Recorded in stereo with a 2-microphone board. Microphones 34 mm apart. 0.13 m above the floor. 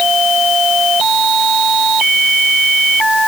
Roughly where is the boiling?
I don't hear boiling.